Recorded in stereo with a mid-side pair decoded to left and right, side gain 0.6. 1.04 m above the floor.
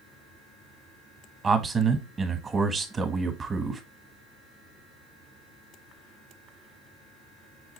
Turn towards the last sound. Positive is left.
turn(degrees=-25)